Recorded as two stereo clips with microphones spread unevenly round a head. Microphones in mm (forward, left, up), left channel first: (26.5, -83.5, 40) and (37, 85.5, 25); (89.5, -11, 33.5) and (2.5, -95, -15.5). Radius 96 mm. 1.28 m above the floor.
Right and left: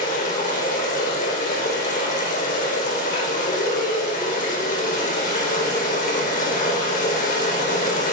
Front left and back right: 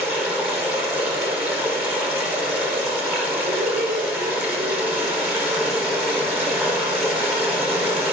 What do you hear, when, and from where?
0.0 s running water: 55° right, 4.5 m
3.5 s laughter: 135° right, 4 m